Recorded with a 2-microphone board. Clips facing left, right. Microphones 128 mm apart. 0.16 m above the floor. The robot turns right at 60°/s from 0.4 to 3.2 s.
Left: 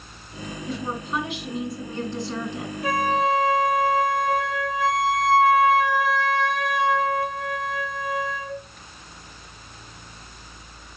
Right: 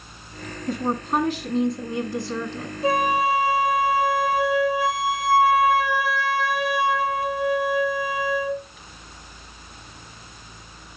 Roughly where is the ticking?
No ticking in this recording.